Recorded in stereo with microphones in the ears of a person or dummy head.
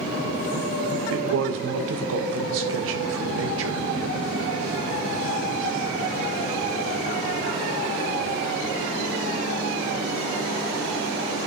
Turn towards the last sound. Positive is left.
turn(degrees=-75)  # may be behind; listen again after turning